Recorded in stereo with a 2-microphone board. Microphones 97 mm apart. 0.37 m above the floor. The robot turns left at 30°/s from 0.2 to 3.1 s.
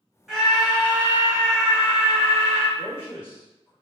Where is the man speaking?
20° left (ahead or behind), 1.4 m; by 3.7 s 25° left (ahead or behind), 1.4 m.